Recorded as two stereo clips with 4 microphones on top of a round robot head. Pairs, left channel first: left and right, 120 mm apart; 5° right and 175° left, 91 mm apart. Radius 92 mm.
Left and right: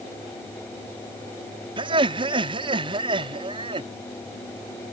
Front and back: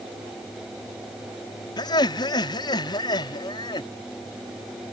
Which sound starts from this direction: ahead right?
Laughter, at 1.8 s.